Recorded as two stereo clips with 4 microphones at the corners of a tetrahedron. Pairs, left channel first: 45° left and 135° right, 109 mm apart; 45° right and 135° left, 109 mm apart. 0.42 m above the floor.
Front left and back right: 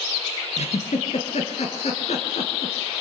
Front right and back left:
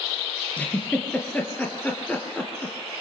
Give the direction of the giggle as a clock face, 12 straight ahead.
11 o'clock.